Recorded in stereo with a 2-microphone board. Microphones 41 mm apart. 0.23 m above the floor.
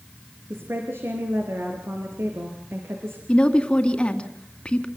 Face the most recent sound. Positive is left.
turn(degrees=25)  # may be behind; listen again after turning